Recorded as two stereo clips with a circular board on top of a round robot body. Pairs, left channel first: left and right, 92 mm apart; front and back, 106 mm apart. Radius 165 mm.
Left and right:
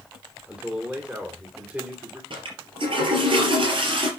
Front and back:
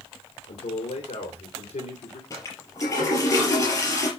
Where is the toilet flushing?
60° right, 4 m.